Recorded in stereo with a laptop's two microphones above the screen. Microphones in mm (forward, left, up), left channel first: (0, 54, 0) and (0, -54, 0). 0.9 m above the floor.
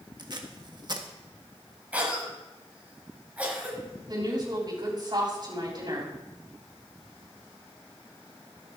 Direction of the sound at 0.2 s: 40° right (ahead or behind).